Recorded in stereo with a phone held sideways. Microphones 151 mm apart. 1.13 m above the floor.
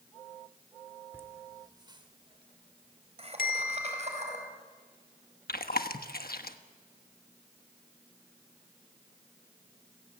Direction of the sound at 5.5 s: 85° left.